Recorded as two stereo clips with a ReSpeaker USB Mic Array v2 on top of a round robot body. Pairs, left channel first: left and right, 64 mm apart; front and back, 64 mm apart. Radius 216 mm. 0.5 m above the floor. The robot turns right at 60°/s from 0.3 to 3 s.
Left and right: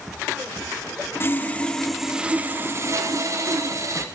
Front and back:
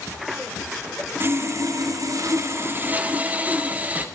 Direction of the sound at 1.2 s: 135° left.